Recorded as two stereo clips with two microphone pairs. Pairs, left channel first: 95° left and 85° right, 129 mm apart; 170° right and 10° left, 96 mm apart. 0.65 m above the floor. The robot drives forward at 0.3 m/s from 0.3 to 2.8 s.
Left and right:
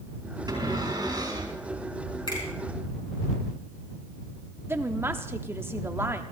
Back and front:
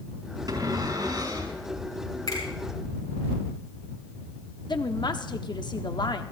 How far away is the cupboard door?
About 6.5 m.